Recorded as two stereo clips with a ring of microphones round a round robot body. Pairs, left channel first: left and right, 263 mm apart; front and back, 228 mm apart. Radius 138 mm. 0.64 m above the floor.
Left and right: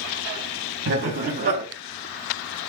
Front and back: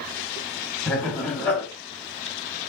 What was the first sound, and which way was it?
Laughter, 80° right.